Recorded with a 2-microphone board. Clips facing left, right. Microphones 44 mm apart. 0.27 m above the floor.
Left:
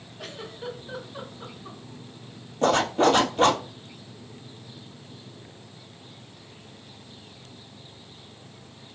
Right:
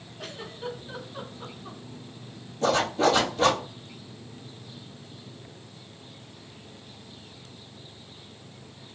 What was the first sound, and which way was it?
A giggle, 5° left (ahead or behind).